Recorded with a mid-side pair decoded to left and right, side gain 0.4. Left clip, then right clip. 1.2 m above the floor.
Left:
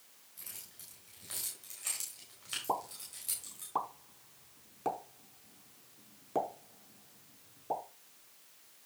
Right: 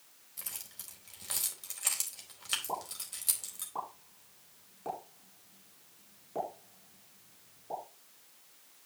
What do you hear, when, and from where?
0.4 s keys jangling: 60° right, 4 m
2.7 s a pop: 60° left, 4 m